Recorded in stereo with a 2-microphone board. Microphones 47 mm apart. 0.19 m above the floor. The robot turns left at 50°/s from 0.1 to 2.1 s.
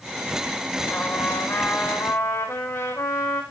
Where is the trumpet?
150° left, 9.5 m; by 3.4 s 90° left, 9.5 m.